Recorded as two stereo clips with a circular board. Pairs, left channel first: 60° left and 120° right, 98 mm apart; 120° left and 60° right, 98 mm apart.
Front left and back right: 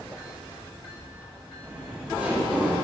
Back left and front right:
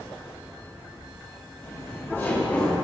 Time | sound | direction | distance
1.6 | laughter | 165° left | 1.6 m